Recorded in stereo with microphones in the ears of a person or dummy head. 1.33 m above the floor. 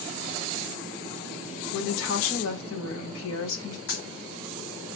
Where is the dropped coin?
60° left (ahead or behind), 1.9 m.